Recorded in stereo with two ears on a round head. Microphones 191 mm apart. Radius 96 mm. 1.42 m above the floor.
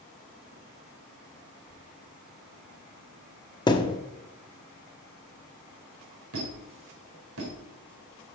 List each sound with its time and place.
3.7 s a thud: 20° left (ahead or behind), 1.0 m
6.3 s a squeak: 70° right (ahead or behind), 4 m